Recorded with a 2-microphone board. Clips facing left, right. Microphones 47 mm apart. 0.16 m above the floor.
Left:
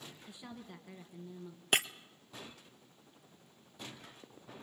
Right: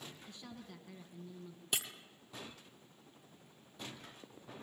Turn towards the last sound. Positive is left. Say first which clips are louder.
# left 9 dB
turn(degrees=55)  # may be behind; listen again after turning